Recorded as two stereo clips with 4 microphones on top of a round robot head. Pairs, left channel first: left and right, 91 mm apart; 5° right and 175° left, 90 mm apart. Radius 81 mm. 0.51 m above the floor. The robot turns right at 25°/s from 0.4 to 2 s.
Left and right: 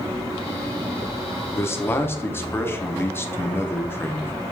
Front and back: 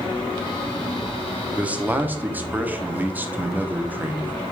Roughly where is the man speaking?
Left.